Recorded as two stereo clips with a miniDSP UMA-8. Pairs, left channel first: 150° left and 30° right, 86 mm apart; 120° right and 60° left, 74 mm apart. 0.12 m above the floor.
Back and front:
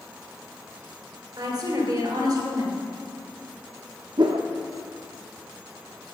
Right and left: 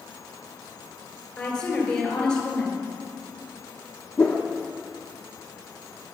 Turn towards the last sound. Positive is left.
turn(degrees=-50)